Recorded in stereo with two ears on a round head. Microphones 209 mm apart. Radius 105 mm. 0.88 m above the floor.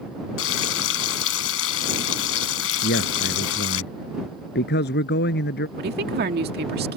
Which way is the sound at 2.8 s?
45° left (ahead or behind).